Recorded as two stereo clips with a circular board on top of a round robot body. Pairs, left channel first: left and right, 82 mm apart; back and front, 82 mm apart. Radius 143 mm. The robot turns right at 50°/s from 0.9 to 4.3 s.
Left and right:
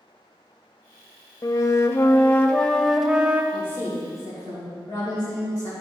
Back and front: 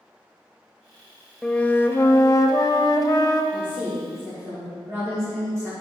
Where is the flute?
105° left, 0.8 m; by 3.4 s 155° right, 0.8 m.